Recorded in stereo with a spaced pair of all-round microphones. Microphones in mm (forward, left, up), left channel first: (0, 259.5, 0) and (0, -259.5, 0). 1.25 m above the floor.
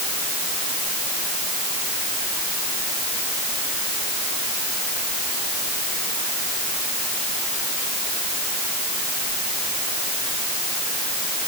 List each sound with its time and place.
Only background noise.